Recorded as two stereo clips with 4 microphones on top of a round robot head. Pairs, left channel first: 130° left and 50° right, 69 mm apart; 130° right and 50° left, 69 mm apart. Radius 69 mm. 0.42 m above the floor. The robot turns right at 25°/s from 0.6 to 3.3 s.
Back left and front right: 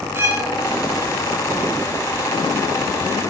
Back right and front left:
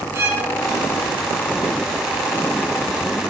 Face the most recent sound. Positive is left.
turn(degrees=70)